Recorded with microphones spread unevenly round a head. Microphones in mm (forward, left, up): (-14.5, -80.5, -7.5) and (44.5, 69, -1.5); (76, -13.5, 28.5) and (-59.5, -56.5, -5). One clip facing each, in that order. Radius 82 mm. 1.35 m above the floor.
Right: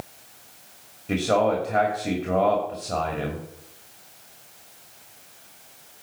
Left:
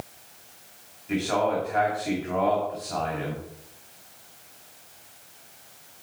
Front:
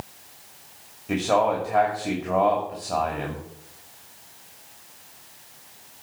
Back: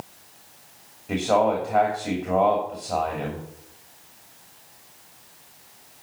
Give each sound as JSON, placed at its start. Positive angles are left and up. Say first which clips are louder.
{"t": 1.1, "sound": "a man speaking", "louder": "right 3 dB, back 1 dB", "azimuth_deg": -70, "distance_m": 2.5}